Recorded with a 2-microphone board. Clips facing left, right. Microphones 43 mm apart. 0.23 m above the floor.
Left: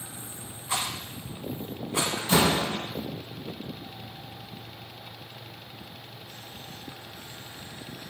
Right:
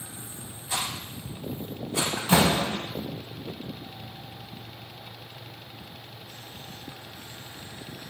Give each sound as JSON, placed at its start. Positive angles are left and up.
{"t": 0.7, "sound": "a rattle", "side_deg": 30, "distance_m": 2.0}
{"t": 2.2, "sound": "a door slam", "side_deg": -35, "distance_m": 0.8}